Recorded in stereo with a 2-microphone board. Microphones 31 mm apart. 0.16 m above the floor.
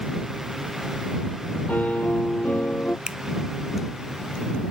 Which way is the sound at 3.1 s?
30° right (ahead or behind).